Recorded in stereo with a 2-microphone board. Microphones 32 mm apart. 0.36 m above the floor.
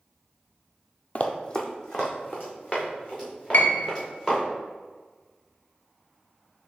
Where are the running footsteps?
45° left (ahead or behind), 0.5 m; by 4.4 s 5° left (ahead or behind), 4 m.